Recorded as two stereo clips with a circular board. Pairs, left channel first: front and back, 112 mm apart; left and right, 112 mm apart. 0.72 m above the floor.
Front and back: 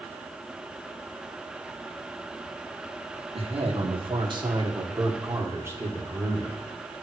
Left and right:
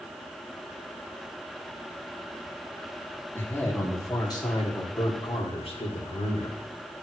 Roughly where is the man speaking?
Behind.